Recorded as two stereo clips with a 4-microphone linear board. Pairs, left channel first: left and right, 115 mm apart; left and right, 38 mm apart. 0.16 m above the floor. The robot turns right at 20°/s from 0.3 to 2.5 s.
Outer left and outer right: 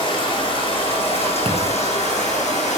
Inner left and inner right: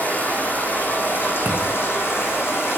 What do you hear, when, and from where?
0.0 s running water: 45° left, 6 m; by 2.8 s 90° left, 6 m
1.4 s a thud: 50° right (ahead or behind), 3.5 m; by 1.8 s 60° right (ahead or behind), 3.5 m